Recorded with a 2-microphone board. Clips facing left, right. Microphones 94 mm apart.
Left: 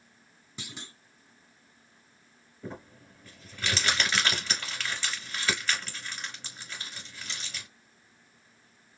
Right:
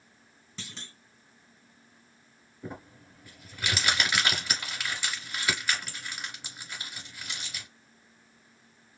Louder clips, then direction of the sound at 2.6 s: Even; 15° right (ahead or behind).